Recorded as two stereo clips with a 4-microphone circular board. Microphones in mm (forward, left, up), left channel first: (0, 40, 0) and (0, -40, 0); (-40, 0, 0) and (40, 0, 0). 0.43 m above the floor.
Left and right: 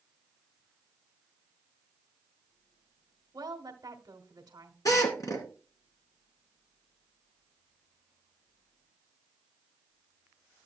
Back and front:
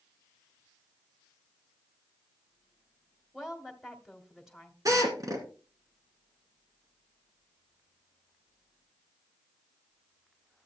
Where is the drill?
45° left, 2 m.